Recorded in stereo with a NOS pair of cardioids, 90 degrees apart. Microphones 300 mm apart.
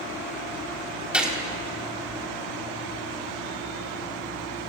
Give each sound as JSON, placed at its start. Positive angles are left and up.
{"t": 1.1, "sound": "a gunshot", "azimuth_deg": -5, "distance_m": 3.0}